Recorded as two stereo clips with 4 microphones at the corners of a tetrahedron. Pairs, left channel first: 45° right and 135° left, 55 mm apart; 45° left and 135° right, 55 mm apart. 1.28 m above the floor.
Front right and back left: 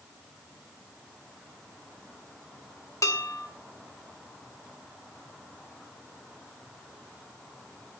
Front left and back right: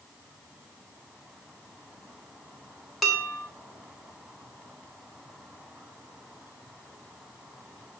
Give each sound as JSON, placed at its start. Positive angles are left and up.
{"t": 3.0, "sound": "dishes clattering", "azimuth_deg": -45, "distance_m": 3.0}